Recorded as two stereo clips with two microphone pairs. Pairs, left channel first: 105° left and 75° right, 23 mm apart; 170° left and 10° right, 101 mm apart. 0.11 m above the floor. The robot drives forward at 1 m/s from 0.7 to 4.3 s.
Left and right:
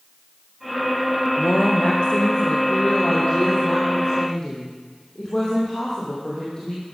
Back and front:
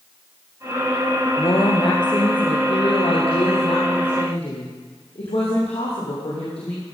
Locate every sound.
1.4 s a woman speaking: 125° left, 2.0 m; by 6.8 s 160° left, 4 m